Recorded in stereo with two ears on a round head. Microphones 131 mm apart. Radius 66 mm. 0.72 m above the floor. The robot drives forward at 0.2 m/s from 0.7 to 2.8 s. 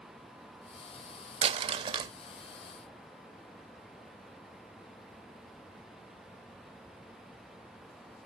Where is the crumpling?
40° right (ahead or behind), 0.6 m; by 2.1 s 35° right (ahead or behind), 0.6 m.